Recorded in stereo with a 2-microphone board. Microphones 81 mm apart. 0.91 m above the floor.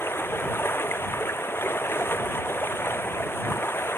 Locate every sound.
0.0 s running water: 30° left (ahead or behind)